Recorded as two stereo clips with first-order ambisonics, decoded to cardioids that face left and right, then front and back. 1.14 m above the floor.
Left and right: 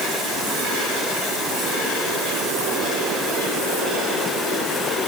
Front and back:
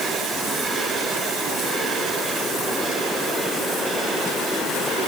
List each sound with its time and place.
Only background noise.